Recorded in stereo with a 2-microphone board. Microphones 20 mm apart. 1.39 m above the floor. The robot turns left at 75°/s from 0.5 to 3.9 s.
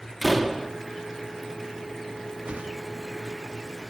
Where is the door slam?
Centre (ahead or behind), 2.5 m; by 0.7 s 20° left (ahead or behind), 2.5 m.